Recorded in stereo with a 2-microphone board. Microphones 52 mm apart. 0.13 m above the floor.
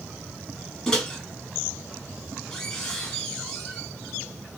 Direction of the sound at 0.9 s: 15° left (ahead or behind).